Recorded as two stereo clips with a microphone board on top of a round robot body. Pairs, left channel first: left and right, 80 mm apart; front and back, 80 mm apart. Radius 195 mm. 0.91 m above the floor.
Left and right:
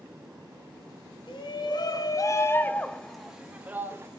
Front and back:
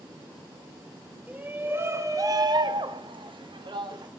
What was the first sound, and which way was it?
A shout, 110° left.